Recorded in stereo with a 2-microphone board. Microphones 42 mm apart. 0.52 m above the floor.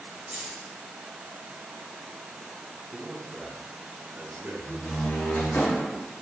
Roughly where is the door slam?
Left.